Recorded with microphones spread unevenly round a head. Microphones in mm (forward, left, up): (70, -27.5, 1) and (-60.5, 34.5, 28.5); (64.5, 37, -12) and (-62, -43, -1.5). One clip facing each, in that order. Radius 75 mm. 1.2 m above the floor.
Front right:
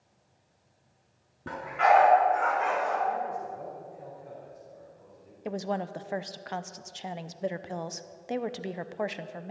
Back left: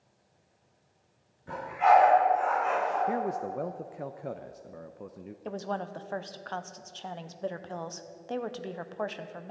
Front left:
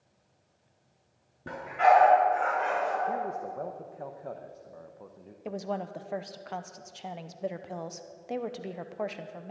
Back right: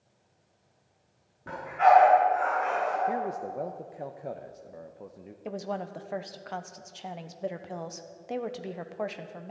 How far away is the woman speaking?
About 0.6 m.